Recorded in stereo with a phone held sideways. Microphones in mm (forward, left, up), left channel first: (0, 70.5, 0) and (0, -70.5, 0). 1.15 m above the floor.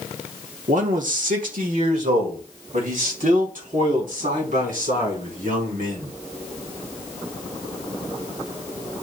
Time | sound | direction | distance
0.7 | a man speaking | 65° right (ahead or behind) | 1.1 m